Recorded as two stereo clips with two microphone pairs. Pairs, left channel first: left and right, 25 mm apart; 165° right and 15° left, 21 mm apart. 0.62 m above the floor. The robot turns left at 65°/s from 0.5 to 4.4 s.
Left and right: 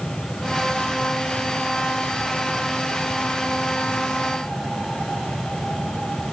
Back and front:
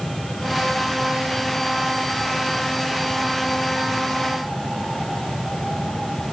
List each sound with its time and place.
Only background noise.